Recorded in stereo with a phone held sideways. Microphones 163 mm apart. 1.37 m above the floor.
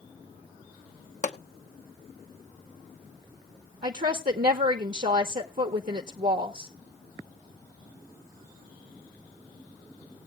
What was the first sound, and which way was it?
A pop, 45° left (ahead or behind).